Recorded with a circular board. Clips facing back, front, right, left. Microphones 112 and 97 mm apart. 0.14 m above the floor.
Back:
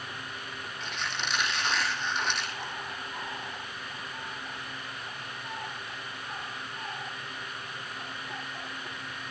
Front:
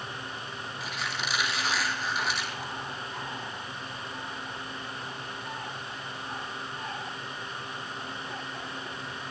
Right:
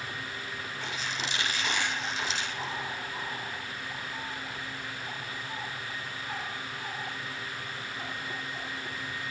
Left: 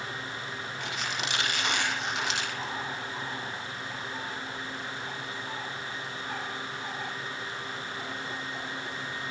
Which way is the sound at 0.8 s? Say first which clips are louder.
Even, left 1 dB; 85° left.